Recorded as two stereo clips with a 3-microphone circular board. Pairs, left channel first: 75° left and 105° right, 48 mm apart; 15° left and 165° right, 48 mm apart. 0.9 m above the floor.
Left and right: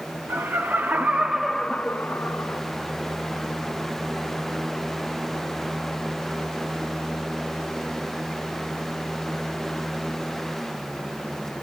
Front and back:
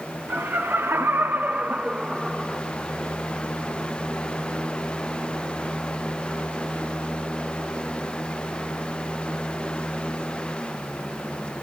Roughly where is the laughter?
Behind right.